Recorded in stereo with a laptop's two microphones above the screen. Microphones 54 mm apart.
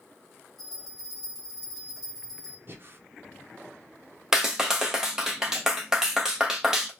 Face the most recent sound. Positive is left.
turn(degrees=-10)  # may be behind; listen again after turning